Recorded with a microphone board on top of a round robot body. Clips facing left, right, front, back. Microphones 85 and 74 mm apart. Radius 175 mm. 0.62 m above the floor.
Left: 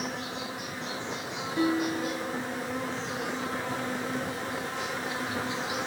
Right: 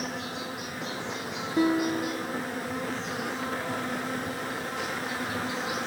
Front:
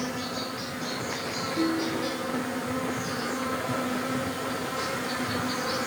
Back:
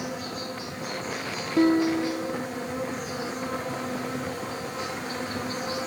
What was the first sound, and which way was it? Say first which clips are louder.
An insect: even, front 1 dB; 5° right.